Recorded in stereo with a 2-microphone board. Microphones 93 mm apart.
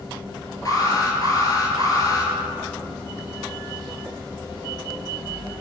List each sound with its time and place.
0.7 s an alarm: 40° left (ahead or behind), 2.5 m